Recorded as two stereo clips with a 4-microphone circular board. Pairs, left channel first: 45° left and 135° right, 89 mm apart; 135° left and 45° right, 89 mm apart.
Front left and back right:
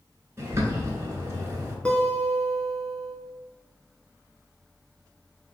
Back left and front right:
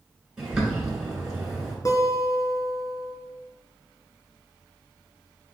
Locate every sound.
0.4 s a bird: 120° right, 1.4 m
1.9 s a guitar: 115° left, 0.8 m